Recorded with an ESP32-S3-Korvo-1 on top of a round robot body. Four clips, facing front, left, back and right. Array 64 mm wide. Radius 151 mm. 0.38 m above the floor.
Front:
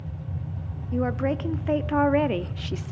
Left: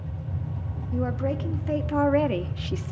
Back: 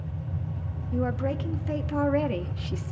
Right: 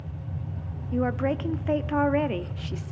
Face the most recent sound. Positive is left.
turn(degrees=45)